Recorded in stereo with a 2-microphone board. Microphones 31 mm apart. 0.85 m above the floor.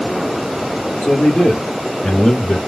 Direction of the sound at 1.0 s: 40° left (ahead or behind).